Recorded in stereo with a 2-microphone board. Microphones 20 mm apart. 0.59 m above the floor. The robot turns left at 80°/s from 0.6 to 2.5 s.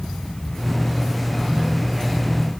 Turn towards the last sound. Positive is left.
No sound to turn to.